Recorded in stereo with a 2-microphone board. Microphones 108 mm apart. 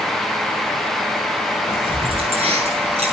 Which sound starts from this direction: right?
Keys jangling, at 1.7 s.